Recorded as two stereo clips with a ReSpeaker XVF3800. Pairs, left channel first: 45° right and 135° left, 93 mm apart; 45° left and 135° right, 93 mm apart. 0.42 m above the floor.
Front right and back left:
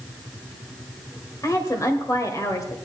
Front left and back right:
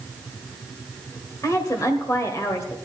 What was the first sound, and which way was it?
A woman speaking, straight ahead.